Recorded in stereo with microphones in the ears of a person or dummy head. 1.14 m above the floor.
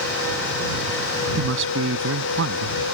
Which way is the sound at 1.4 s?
70° right (ahead or behind).